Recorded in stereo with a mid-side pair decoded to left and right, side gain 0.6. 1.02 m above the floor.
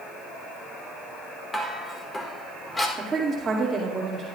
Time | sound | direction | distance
1.5 | dishes clattering | 20° left | 2 m
3.0 | a woman speaking | 25° right | 2.5 m